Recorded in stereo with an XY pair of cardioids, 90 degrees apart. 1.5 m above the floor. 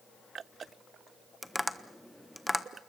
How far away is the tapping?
About 1.2 m.